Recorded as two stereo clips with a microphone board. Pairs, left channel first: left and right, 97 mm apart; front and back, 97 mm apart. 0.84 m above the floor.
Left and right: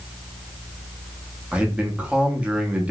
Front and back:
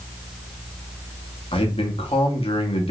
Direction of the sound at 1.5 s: 10° right.